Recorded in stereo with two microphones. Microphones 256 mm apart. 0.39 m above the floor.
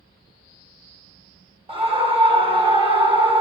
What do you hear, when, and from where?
1.7 s a scream: 20° right (ahead or behind), 1.3 m